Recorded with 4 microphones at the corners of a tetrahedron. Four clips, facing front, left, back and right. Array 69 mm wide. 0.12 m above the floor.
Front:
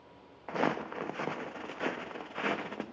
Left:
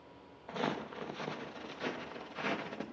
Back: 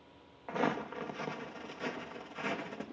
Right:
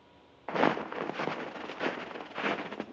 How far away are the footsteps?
About 0.6 m.